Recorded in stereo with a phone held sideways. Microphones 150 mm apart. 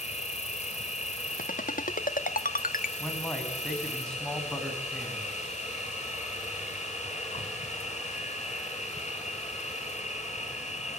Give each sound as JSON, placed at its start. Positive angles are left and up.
{"t": 0.0, "sound": "an insect", "side_deg": 55, "distance_m": 2.5}
{"t": 1.4, "sound": "a ringtone", "side_deg": 75, "distance_m": 1.1}
{"t": 3.0, "sound": "a man speaking", "side_deg": 5, "distance_m": 7.5}